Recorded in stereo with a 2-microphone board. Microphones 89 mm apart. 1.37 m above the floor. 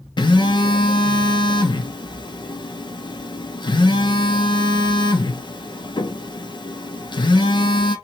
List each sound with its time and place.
0.2 s a phone buzzing: 60° left (ahead or behind), 0.9 m